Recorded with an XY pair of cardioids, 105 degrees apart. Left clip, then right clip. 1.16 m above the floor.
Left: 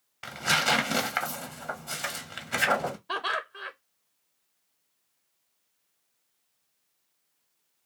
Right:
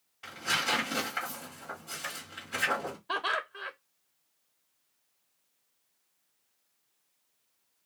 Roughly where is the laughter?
Ahead.